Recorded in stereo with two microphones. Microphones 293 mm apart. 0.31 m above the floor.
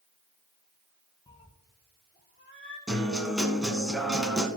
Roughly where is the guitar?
Centre.